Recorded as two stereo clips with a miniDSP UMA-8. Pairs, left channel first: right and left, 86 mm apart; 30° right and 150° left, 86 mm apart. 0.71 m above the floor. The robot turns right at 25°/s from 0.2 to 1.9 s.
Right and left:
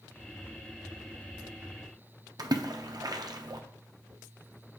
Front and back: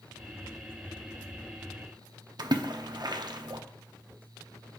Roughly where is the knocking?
No knocking in this recording.